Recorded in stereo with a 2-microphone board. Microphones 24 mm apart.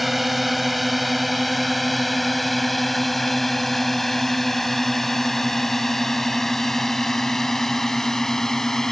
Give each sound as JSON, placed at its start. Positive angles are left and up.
{"t": 0.0, "sound": "a drone", "side_deg": -5}